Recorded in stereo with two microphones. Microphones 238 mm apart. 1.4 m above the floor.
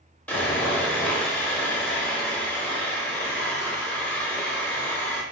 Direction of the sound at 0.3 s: 5° left (ahead or behind).